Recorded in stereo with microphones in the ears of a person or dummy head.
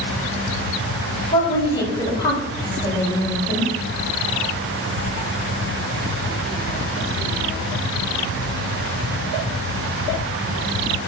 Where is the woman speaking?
25° left (ahead or behind), 4.5 m.